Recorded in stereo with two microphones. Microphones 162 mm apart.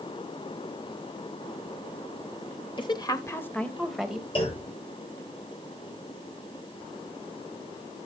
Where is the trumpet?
I don't hear a trumpet.